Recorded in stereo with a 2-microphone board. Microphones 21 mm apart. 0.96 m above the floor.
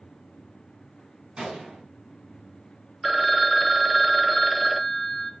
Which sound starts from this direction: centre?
A phone ringing, at 3.0 s.